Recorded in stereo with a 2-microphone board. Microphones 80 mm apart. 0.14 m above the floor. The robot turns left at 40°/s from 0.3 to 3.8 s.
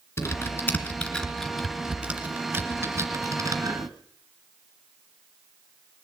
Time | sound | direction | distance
0.2 | typing on a keyboard | 35° left (ahead or behind) | 1.9 m